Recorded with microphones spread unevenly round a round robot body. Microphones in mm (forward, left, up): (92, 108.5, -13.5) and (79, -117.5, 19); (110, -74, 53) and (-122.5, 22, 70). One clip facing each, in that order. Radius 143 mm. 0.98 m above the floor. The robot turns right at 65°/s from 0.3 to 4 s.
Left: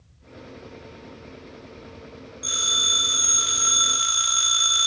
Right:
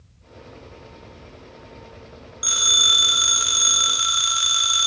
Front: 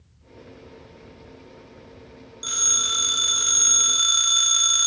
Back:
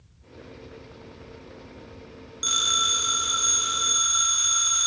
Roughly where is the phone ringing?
Behind right.